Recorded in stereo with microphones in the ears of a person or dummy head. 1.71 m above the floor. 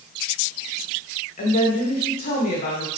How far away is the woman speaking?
About 2 m.